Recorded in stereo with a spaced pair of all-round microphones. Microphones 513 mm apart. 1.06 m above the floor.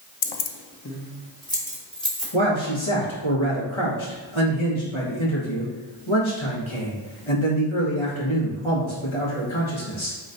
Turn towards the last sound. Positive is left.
turn(degrees=65)  # may be behind; listen again after turning